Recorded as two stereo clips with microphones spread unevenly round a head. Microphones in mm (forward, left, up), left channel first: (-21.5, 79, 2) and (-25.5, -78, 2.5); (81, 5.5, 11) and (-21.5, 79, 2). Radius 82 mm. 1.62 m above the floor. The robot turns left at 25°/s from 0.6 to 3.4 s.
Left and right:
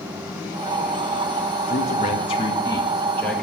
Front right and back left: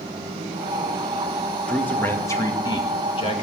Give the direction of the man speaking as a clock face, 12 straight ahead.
11 o'clock.